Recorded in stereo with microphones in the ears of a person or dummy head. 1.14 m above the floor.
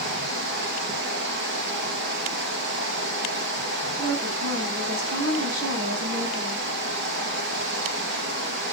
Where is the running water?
70° right (ahead or behind), 3.5 m.